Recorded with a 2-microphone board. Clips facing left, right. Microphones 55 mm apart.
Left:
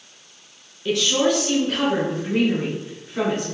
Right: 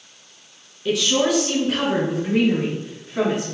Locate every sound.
0.8 s a woman speaking: centre (ahead or behind), 1.5 m; by 3.5 s 5° right (ahead or behind), 1.8 m